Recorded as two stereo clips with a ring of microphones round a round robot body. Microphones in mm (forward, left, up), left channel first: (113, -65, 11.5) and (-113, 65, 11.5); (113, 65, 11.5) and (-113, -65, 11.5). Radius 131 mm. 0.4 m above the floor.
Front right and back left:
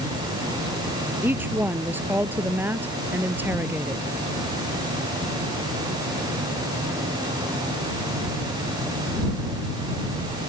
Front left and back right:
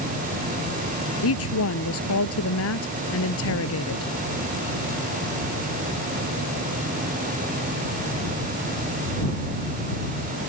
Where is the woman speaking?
65° left.